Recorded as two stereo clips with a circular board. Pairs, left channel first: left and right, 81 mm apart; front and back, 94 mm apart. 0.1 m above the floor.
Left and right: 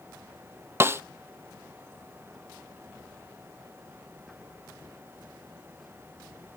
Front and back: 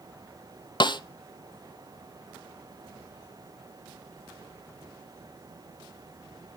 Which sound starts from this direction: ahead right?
A snare drum, at 0.8 s.